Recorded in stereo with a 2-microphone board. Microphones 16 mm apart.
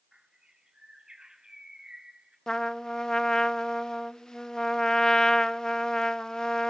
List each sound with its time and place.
0.1 s a bird: 60° right (ahead or behind), 6 m
2.5 s a trumpet: 45° left (ahead or behind), 0.7 m